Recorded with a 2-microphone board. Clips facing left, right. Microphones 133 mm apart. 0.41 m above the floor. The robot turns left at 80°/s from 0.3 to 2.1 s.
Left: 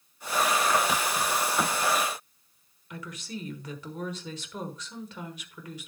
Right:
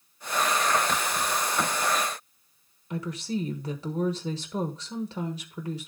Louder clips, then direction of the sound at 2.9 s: Right 8 dB; 35° right (ahead or behind).